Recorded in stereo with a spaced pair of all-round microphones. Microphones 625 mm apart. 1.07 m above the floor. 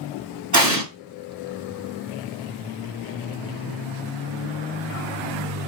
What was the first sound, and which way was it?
An explosion, 25° right (ahead or behind).